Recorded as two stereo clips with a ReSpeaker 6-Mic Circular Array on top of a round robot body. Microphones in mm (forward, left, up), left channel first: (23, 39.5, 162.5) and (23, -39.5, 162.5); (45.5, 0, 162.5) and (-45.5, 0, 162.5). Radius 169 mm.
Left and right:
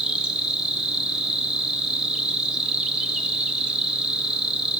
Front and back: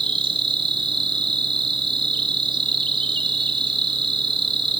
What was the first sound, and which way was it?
An insect, 170° right.